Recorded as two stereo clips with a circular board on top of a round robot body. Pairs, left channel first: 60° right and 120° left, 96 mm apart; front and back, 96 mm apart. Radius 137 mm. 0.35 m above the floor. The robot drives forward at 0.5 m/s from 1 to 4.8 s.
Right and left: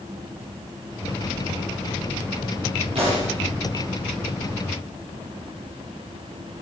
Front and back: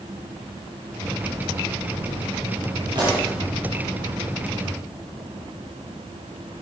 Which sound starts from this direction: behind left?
A pop, at 3.0 s.